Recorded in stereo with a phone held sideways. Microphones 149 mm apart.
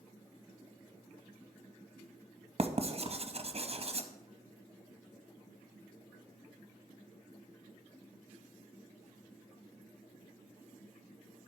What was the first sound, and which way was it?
Writing, 40° right (ahead or behind).